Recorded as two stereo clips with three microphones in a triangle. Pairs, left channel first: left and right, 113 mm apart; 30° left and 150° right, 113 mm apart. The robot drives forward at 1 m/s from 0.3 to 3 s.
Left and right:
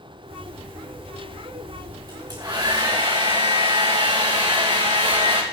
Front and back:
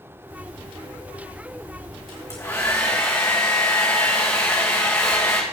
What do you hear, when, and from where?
2.1 s a hair dryer: 30° right, 4 m; by 5.4 s 40° right, 3.5 m